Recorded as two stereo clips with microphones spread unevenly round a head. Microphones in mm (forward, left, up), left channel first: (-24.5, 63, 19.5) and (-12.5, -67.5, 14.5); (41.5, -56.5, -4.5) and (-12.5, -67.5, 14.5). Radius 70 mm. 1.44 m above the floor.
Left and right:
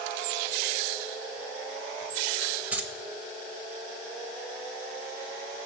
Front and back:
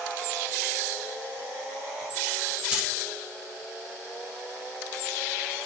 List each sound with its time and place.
2.7 s keys jangling: 155° right, 0.7 m